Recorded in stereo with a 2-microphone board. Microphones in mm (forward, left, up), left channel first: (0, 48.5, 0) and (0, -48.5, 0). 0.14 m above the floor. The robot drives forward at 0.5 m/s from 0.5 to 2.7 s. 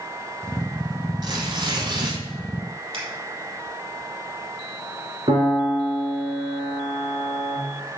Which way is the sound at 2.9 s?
70° right (ahead or behind).